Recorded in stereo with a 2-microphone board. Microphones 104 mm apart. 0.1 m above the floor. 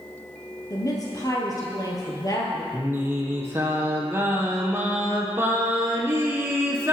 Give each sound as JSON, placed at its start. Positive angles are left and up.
{"t": 0.7, "sound": "a woman speaking", "side_deg": 35, "distance_m": 2.0}
{"t": 2.7, "sound": "singing", "side_deg": -20, "distance_m": 1.8}